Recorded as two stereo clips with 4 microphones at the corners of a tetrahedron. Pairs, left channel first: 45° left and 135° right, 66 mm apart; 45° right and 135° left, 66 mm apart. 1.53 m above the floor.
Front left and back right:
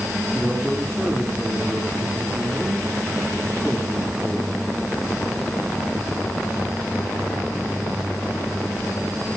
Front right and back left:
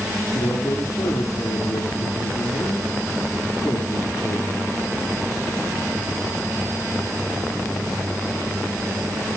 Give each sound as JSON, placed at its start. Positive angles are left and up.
{"t": 0.3, "sound": "a man speaking", "azimuth_deg": -45, "distance_m": 3.5}